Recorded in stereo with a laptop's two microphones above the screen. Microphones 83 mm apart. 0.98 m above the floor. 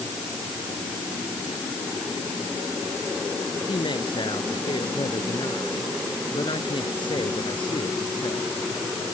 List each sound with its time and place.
3.7 s a woman speaking: 80° left